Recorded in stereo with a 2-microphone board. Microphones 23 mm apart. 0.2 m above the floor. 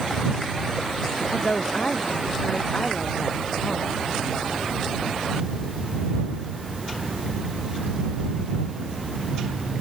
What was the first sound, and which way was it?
A woman speaking, 40° left (ahead or behind).